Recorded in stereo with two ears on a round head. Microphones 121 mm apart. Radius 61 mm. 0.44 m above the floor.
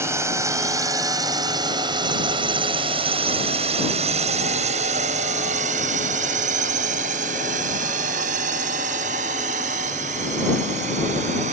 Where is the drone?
20° right (ahead or behind); by 11.5 s 50° right (ahead or behind).